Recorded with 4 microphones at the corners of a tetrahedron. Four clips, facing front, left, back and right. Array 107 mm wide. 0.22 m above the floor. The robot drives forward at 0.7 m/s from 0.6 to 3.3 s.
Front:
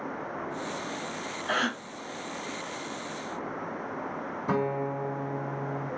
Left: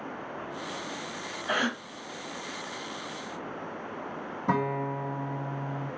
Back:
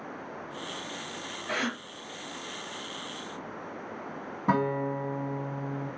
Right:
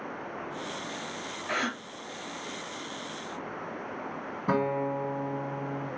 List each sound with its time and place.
1.5 s a gasp: 35° left, 0.6 m; by 1.8 s 70° left, 0.6 m
4.5 s a guitar: 170° right, 2 m